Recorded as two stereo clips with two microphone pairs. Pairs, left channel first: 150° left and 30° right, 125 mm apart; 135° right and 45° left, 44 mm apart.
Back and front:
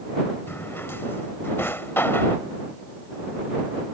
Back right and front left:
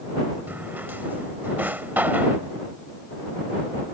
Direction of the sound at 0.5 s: 80° left.